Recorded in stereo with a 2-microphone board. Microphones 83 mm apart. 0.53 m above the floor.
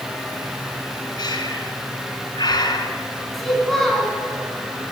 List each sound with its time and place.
1.2 s breathing: 60° left (ahead or behind), 1.2 m
3.3 s a child speaking: 5° left (ahead or behind), 4 m